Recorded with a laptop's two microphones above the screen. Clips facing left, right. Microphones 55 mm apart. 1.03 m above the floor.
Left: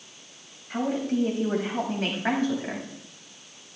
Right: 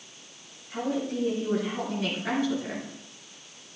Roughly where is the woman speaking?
Left.